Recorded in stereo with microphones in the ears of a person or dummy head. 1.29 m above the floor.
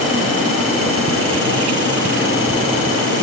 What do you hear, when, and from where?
Only background noise.